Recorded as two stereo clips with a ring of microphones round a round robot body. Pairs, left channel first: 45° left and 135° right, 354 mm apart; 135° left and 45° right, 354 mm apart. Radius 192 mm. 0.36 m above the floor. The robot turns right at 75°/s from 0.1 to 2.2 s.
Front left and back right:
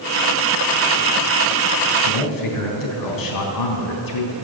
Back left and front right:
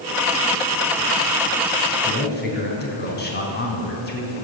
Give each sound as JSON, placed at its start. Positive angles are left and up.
{"t": 2.0, "sound": "a man speaking", "azimuth_deg": 60, "distance_m": 3.5}